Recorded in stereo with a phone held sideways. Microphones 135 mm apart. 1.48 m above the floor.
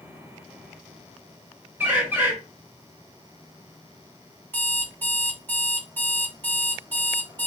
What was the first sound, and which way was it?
A bird, 15° right (ahead or behind).